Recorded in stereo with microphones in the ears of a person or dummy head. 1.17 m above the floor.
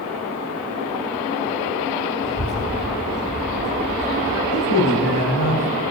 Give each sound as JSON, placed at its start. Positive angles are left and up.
{"t": 2.2, "sound": "a child speaking", "side_deg": 70, "distance_m": 5.0}
{"t": 4.5, "sound": "a man speaking", "side_deg": 90, "distance_m": 5.0}